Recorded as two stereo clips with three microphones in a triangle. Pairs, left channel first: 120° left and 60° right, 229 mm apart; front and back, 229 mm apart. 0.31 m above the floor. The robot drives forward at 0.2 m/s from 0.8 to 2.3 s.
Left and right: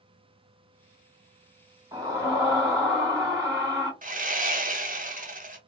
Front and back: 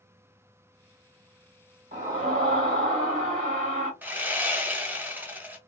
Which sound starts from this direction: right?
Sawing, at 4.0 s.